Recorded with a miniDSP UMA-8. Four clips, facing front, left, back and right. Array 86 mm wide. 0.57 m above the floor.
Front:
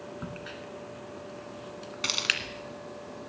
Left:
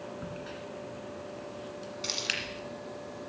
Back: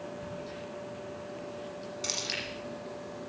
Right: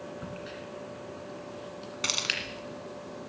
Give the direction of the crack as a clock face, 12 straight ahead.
12 o'clock.